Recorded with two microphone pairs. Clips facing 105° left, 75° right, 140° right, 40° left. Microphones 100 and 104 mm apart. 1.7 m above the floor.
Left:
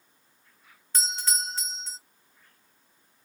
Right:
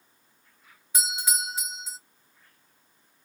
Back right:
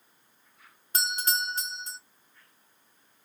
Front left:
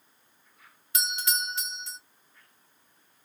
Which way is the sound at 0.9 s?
145° right.